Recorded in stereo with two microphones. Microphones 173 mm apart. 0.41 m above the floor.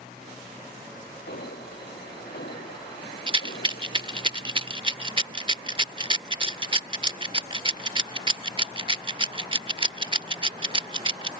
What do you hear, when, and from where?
1.3 s an alarm: 70° left (ahead or behind)
3.3 s a rattle: 30° right (ahead or behind)